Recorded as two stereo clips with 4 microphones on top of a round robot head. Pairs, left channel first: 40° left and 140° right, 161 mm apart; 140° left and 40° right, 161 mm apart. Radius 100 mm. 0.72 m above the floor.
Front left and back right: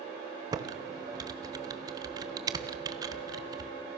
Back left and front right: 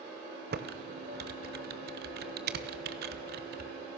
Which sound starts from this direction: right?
Typing on a keyboard, at 0.5 s.